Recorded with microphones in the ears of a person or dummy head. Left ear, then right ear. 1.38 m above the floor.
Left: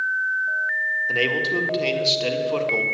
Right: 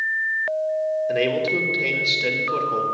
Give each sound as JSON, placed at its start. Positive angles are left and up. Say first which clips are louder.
{"t": 1.1, "sound": "a man speaking", "louder": "even", "side_deg": 15, "distance_m": 1.5}